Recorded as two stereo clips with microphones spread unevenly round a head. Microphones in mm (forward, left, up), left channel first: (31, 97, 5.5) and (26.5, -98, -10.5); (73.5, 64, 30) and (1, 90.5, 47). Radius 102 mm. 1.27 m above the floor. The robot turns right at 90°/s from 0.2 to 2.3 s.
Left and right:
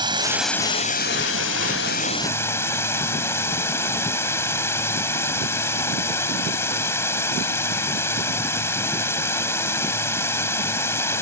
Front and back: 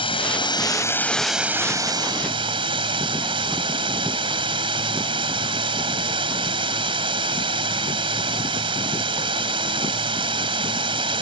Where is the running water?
20° right; by 11.2 s 165° left.